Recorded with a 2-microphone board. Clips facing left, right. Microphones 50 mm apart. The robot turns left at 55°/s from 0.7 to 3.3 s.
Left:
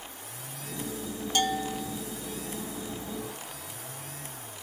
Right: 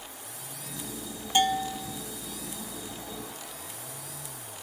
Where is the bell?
155° right, 0.7 m; by 2.0 s 175° left, 0.7 m.